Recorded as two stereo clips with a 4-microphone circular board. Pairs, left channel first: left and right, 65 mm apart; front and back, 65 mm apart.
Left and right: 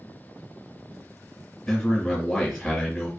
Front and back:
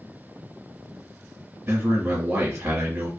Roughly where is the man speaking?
Behind left.